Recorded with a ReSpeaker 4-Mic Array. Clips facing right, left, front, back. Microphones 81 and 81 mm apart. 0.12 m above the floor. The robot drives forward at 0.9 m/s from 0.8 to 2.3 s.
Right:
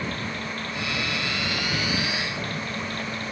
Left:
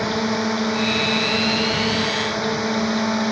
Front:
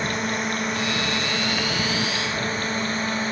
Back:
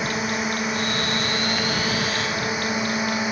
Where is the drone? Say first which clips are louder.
Left 10 dB, back 1 dB; 95° left; by 3.3 s 100° left.